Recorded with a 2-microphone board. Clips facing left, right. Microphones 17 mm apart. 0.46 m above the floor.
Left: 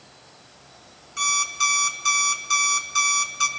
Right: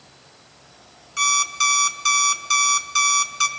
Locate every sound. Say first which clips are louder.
1.2 s an alarm clock: right 3 dB; 15° right (ahead or behind), 1.0 m